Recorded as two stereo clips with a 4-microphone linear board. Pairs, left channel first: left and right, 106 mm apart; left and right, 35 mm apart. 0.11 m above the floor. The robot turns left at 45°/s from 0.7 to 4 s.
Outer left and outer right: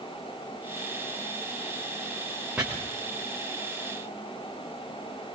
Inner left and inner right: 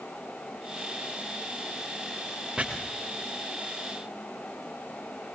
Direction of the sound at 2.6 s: 15° right (ahead or behind).